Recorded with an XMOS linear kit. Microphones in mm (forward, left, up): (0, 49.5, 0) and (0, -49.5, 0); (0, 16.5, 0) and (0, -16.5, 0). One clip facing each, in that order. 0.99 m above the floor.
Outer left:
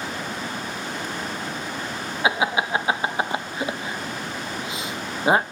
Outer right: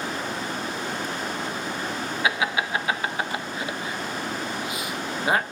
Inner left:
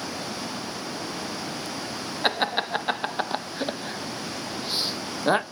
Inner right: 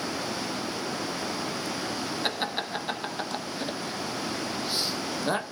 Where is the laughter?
25° left (ahead or behind), 0.6 m.